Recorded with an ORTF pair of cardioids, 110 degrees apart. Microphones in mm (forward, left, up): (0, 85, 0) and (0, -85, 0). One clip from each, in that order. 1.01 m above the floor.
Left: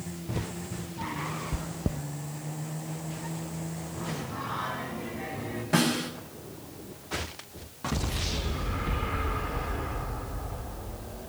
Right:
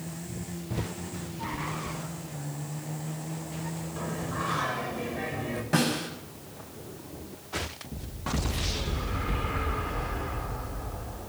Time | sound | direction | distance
1.5 | chewing | 60° left | 0.6 m
4.0 | singing | 50° right | 6 m
5.7 | a snare drum | straight ahead | 7.5 m